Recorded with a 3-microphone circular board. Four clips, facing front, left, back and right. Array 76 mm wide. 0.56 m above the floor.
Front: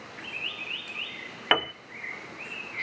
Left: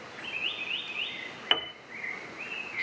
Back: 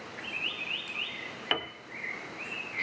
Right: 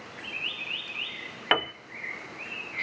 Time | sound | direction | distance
1.5 | a piano | 50° right | 0.8 m